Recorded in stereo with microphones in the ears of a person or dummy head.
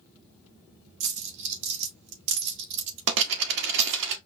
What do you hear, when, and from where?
1.0 s a dropped coin: 55° right (ahead or behind), 0.6 m